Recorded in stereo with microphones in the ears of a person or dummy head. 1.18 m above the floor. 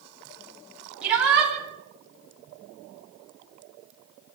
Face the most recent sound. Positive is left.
turn(degrees=-5)  # may be behind; listen again after turning